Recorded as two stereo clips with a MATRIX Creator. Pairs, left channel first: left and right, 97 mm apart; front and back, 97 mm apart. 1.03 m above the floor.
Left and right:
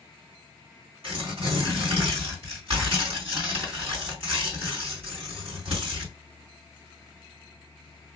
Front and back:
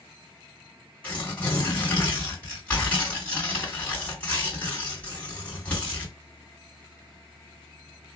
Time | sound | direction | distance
1.0 | tearing paper | 75° right | 2.5 m